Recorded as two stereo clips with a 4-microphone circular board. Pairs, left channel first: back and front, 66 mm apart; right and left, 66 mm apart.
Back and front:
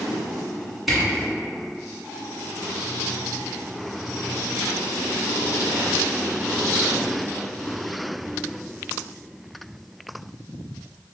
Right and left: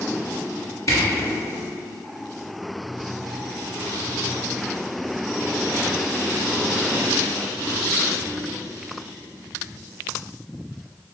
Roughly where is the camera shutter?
Right.